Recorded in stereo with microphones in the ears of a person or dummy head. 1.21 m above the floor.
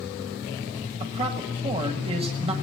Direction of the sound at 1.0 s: 30° right (ahead or behind).